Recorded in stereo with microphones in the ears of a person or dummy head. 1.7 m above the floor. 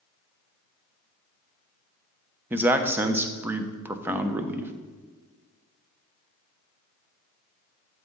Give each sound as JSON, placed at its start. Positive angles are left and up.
{"t": 2.5, "sound": "a man speaking", "side_deg": -10, "distance_m": 0.5}